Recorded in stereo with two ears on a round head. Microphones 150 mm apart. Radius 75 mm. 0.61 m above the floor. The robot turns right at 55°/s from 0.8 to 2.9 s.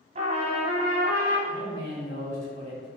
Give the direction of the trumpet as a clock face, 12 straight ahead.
5 o'clock.